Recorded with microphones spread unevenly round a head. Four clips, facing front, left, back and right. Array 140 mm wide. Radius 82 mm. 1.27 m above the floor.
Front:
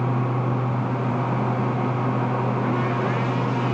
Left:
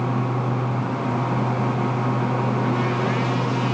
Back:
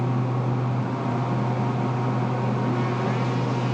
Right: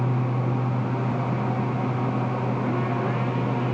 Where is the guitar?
I don't hear a guitar.